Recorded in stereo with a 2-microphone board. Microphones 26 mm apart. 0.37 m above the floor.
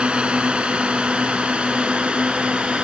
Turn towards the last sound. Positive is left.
turn(degrees=-45)  # may be behind; listen again after turning